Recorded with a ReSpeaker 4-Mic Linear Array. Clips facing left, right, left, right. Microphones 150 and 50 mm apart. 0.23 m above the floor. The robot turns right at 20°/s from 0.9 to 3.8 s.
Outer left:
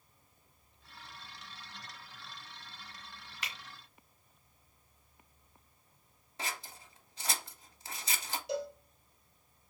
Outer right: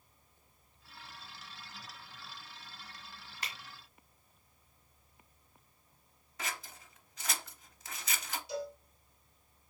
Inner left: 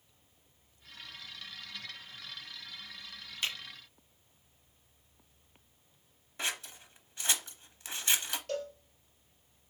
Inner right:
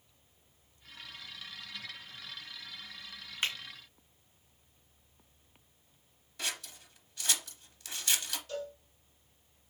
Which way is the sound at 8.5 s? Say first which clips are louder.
Outer left 3 dB, inner left 3 dB; 70° left (ahead or behind).